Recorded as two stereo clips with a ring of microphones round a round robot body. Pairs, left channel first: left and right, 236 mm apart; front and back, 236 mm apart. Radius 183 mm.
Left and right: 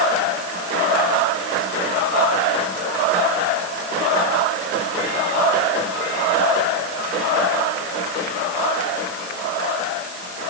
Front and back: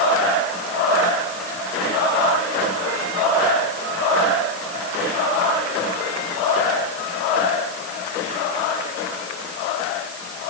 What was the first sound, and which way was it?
Only background noise.